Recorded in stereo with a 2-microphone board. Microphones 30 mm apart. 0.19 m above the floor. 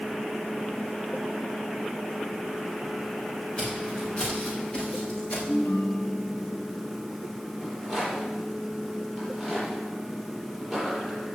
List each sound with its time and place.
3.6 s footsteps: 30° left (ahead or behind), 6 m; by 5.4 s 40° left (ahead or behind), 5.5 m
5.5 s a ringtone: 80° left, 1.9 m
7.6 s a rattle: 10° left (ahead or behind), 5.5 m